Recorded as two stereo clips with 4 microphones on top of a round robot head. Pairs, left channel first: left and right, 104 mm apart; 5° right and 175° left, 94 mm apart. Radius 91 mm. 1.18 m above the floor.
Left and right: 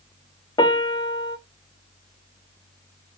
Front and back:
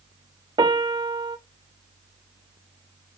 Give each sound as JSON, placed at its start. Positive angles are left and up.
{"t": 0.6, "sound": "a piano", "azimuth_deg": 135, "distance_m": 1.1}